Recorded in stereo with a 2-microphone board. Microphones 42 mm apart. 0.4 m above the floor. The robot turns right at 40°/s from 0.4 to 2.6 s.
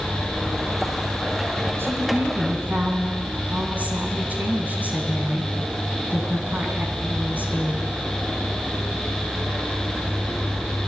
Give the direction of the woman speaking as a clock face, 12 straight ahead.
2 o'clock.